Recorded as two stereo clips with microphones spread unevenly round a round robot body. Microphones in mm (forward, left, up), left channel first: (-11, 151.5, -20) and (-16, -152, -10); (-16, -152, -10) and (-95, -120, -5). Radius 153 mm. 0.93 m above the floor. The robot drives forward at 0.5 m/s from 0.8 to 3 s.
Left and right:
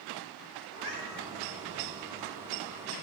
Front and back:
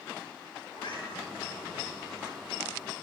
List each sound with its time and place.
0.7 s a cat meowing: 45° right, 3.5 m